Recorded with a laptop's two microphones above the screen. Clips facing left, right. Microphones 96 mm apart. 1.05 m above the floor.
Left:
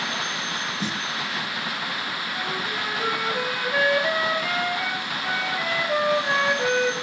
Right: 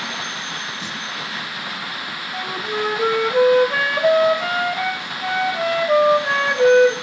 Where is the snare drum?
40° left (ahead or behind), 0.9 m.